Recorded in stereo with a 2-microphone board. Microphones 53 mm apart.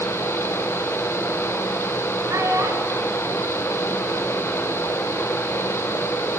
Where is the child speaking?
70° right (ahead or behind), 7.5 m; by 4.5 s 80° right, 7 m.